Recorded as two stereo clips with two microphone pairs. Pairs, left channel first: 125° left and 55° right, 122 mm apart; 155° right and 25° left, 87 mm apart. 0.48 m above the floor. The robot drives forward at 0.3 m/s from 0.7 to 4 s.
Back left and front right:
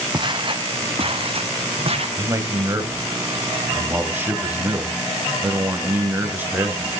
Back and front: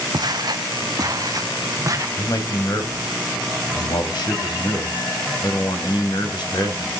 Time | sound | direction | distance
0.1 | footsteps | 5° right | 1.2 m
2.2 | a man speaking | 115° right | 2.5 m